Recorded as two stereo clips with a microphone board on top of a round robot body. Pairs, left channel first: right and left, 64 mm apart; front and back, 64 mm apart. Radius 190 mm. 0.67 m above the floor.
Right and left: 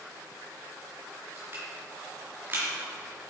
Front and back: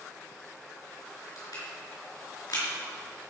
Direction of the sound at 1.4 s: 30° left.